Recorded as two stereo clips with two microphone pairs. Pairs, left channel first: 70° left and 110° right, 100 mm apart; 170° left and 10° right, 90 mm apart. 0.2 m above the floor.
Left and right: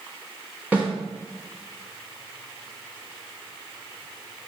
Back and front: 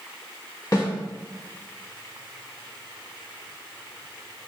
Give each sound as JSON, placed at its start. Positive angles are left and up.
{"t": 0.7, "sound": "a snare drum", "azimuth_deg": -175, "distance_m": 1.1}